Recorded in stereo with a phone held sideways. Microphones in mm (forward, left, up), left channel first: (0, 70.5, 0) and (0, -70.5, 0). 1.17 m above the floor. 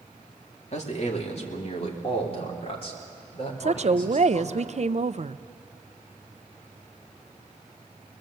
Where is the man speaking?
55° left (ahead or behind), 2.5 m; by 4.6 s 40° left (ahead or behind), 5 m.